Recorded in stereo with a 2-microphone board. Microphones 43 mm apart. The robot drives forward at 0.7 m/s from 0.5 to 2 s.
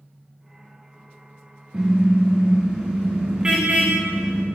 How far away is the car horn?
About 7 m.